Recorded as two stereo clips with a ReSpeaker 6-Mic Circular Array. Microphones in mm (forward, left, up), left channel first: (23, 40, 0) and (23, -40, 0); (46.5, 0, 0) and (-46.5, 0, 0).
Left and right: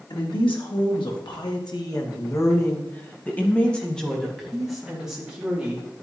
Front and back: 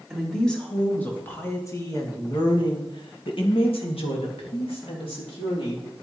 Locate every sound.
0.1 s a woman speaking: 85° left, 3.5 m; by 5.8 s 10° right, 4.5 m